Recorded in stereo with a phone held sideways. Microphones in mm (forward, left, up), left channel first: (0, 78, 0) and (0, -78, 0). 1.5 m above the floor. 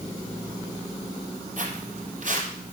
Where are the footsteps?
55° right (ahead or behind), 2.5 m.